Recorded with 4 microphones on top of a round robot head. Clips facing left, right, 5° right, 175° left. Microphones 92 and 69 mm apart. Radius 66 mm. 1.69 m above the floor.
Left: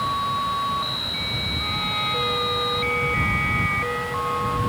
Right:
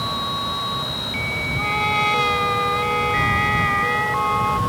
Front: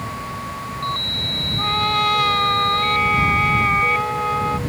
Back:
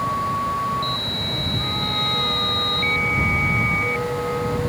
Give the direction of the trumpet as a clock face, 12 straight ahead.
2 o'clock.